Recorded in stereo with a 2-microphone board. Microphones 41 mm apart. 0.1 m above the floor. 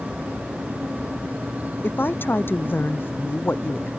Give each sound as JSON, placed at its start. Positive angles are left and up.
{"t": 1.8, "sound": "a woman speaking", "side_deg": 60}